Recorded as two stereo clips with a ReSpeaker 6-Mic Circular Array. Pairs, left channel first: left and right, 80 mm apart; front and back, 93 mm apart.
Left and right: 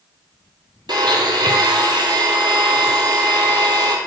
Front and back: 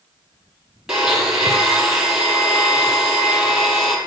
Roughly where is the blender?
Right.